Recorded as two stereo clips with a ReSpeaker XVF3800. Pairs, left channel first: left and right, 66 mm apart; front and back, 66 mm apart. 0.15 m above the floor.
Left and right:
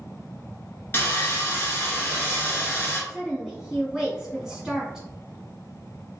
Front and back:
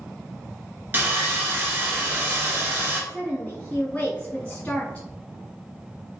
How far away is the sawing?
About 1.0 m.